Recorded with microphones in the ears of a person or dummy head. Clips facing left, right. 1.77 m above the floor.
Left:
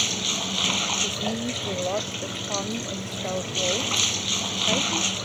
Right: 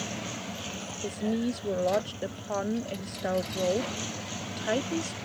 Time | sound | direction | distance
0.0 | running water | 85° left | ?
1.0 | a woman speaking | 10° right (ahead or behind) | ?